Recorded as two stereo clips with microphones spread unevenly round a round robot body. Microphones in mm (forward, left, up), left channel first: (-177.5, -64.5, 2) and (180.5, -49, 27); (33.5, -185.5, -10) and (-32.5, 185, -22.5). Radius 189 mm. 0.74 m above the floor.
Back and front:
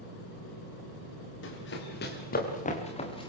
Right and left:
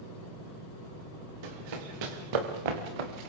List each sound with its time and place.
1.4 s running footsteps: 120° left, 5.5 m; by 3.3 s 105° left, 4 m